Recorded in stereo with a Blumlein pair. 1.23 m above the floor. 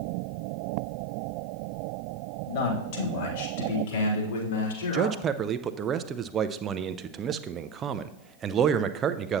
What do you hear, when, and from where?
2.5 s a man speaking: 45° left, 2.5 m; by 5.1 s 65° left, 3.5 m
4.9 s a man speaking: 25° right, 0.5 m